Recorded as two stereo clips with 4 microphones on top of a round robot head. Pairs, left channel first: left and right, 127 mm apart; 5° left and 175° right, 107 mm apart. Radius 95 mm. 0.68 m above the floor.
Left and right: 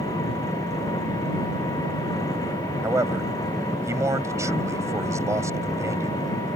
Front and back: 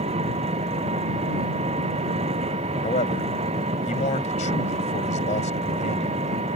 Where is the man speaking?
25° right.